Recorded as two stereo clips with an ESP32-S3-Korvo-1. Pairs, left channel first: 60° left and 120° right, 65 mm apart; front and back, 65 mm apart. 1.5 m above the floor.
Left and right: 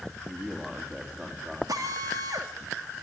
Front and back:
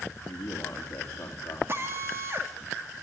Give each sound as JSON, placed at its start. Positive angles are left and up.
{"t": 0.3, "sound": "a man speaking", "azimuth_deg": -45, "distance_m": 3.0}
{"t": 1.7, "sound": "a drill", "azimuth_deg": -130, "distance_m": 2.5}